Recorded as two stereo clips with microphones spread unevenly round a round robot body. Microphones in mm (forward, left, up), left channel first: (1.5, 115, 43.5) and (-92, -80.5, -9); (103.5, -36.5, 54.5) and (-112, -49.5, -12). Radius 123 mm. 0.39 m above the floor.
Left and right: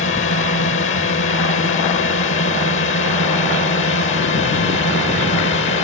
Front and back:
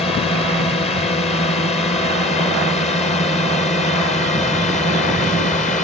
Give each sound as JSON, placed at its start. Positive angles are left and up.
{"t": 0.0, "sound": "a drone", "azimuth_deg": 80}